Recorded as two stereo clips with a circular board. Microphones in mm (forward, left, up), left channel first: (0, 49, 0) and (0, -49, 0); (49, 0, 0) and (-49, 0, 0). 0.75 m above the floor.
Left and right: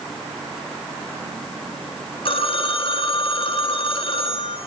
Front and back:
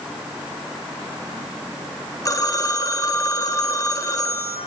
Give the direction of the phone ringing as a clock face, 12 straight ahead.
10 o'clock.